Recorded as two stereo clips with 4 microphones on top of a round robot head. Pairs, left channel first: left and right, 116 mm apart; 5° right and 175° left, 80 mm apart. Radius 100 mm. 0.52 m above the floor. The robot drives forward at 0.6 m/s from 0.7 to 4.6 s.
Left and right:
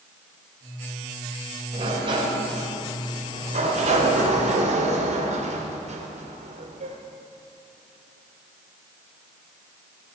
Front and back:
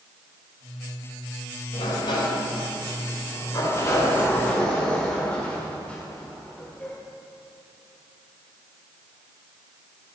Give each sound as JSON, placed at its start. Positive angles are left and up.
{"t": 1.7, "sound": "a sliding door", "azimuth_deg": -35, "distance_m": 2.5}